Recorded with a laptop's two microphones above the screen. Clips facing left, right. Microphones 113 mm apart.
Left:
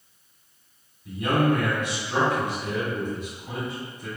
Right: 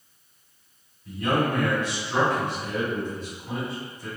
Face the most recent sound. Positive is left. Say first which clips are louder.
# left 2 dB
turn(degrees=15)  # may be behind; listen again after turning